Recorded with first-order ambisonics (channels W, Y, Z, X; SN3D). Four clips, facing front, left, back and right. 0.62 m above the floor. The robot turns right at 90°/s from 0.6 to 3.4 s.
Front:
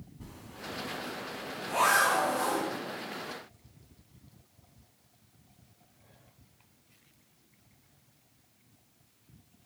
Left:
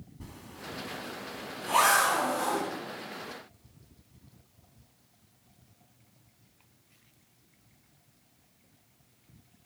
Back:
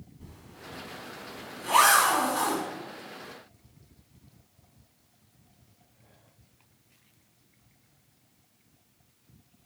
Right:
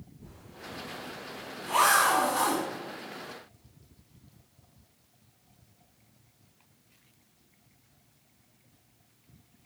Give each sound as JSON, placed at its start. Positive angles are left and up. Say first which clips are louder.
{"t": 0.2, "sound": "a zipper", "louder": "left 3 dB, front 4 dB", "azimuth_deg": 70, "distance_m": 2.5}